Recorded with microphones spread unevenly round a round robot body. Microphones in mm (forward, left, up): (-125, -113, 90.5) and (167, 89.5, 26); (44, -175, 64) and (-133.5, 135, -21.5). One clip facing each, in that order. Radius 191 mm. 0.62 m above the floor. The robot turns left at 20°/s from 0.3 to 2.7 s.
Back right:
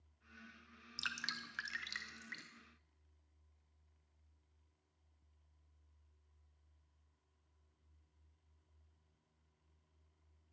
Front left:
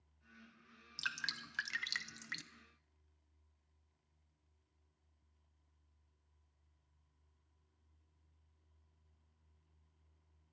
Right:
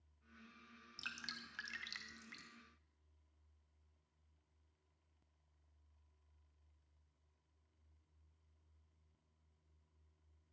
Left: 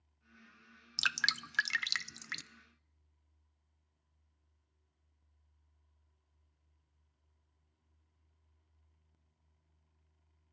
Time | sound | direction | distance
1.0 | dripping | 130° left | 0.5 m